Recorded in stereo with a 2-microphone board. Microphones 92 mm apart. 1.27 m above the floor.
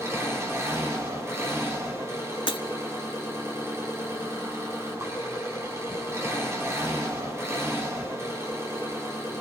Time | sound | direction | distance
0.0 | an engine running | 30° right (ahead or behind) | 8 m
2.5 | breaking glass | 65° left (ahead or behind) | 1.3 m